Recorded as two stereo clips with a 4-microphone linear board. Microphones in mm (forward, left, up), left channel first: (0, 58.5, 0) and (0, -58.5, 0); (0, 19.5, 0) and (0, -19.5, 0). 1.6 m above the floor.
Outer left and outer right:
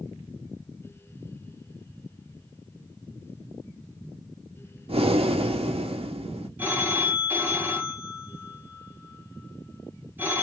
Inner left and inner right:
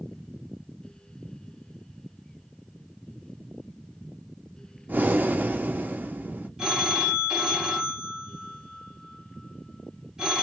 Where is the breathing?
55° right (ahead or behind), 0.6 m.